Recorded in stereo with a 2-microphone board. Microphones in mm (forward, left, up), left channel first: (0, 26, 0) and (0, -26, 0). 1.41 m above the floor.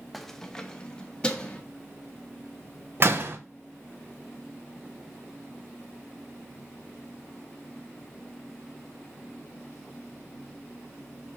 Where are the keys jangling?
Centre (ahead or behind), 0.6 m; by 1.6 s 20° left (ahead or behind), 1.7 m.